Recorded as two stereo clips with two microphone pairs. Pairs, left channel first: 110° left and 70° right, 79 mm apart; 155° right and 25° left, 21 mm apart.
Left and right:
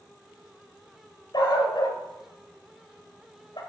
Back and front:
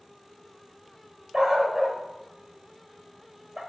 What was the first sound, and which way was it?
A dog barking, 90° left.